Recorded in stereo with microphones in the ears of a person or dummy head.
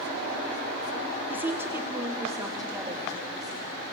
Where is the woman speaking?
5° right (ahead or behind), 0.8 m; by 3.7 s 15° right (ahead or behind), 3 m.